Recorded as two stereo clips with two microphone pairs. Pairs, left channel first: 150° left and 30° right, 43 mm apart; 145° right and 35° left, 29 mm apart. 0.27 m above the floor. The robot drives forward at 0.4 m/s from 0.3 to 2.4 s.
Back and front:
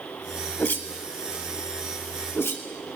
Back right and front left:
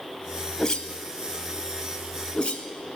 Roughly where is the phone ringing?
I don't hear a phone ringing.